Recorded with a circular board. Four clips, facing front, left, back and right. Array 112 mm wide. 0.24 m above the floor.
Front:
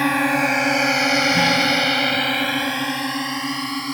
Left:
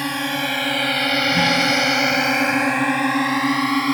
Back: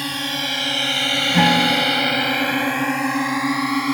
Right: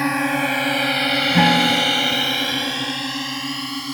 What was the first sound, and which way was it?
A drone, 25° right.